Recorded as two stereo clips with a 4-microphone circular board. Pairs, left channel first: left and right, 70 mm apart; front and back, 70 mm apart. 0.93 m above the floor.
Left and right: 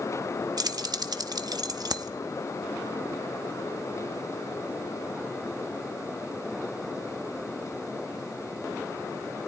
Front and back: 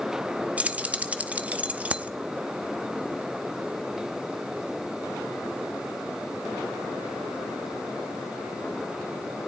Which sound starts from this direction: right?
Keys jangling, at 0.6 s.